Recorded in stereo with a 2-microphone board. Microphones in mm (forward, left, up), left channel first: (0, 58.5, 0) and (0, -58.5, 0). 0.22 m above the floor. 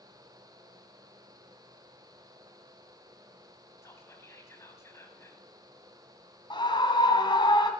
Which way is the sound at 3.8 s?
25° left (ahead or behind).